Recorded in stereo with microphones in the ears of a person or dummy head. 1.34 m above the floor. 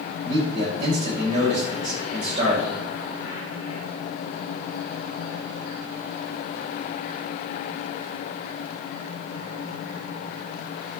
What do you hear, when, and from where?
0.2 s a man speaking: 40° right (ahead or behind), 6.5 m